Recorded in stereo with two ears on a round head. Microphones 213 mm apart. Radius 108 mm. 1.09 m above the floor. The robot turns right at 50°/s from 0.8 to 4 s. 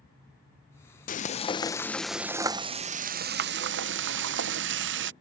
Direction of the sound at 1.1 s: 130° left.